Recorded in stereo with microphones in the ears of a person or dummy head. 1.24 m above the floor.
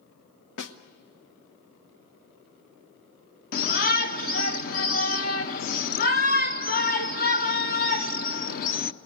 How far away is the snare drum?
About 1.0 m.